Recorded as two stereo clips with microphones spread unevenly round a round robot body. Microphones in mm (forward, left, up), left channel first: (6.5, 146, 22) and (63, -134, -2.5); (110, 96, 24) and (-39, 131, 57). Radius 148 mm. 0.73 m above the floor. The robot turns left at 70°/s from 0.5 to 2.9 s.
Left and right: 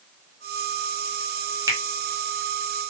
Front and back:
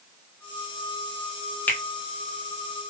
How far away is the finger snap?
About 0.8 m.